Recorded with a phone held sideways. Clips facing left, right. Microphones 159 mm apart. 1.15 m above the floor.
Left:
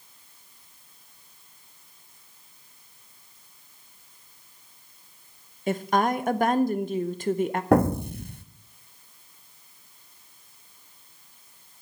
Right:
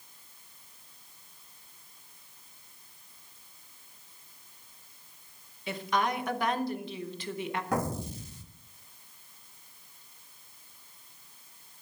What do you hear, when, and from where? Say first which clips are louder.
5.7 s a woman speaking: left 6 dB; 50° left (ahead or behind), 0.8 m
7.7 s an explosion: left 13 dB; 65° left (ahead or behind), 0.8 m